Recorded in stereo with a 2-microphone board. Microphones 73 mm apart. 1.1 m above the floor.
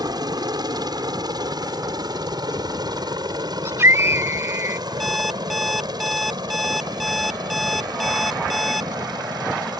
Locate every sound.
0.0 s a helicopter: 70° right (ahead or behind)
3.6 s a scream: 35° right (ahead or behind)
5.0 s an alarm clock: centre (ahead or behind)